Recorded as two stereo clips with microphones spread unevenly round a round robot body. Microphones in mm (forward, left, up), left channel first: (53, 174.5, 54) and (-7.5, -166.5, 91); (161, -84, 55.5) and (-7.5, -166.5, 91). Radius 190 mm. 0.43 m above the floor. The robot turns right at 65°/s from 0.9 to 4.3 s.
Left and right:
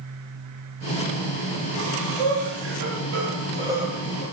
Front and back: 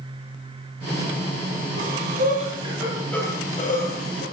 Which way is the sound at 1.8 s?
145° right.